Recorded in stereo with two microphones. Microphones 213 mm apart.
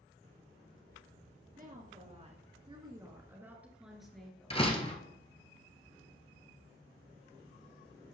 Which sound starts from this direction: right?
A woman speaking, at 1.6 s.